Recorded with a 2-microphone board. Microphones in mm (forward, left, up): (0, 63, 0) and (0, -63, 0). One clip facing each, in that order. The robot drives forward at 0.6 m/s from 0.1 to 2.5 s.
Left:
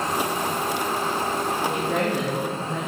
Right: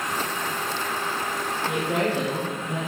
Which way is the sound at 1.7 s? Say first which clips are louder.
Right 3 dB; 10° right (ahead or behind).